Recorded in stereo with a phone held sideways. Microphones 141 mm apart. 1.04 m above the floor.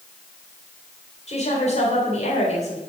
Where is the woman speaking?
55° left (ahead or behind), 3.5 m.